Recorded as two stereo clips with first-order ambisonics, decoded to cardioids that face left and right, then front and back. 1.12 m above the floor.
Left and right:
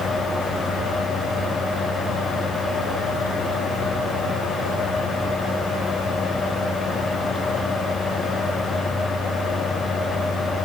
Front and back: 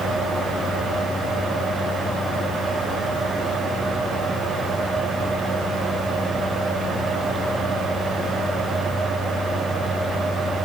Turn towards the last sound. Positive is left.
No sound to turn to.